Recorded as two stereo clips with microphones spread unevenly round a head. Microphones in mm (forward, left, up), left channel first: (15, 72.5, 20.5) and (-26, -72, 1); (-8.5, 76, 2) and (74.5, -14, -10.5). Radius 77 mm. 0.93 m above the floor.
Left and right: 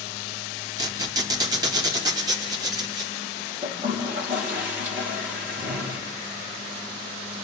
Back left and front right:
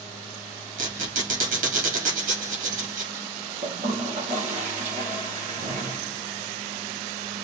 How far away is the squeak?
About 3.5 m.